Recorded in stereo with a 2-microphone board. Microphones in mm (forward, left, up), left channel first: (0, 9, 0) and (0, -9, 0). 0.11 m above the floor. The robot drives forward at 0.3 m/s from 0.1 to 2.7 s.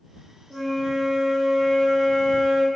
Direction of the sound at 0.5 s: 25° left (ahead or behind).